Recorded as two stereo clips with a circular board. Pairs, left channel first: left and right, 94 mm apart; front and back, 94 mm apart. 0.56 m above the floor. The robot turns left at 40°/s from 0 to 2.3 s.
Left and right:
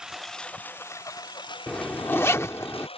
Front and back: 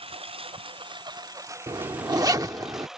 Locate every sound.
0.0 s a lawn mower: 170° right; by 3.0 s 95° left
1.7 s a zipper: 170° left; by 2.9 s 145° left